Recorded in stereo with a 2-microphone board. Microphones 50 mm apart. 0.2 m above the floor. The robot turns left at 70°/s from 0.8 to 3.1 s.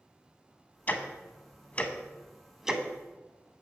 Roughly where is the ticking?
Left.